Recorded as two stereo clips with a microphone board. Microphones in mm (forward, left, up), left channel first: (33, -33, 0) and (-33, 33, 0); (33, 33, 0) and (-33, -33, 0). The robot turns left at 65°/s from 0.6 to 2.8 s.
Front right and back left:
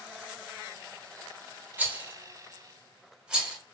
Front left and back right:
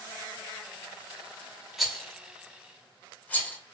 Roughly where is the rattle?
Behind left.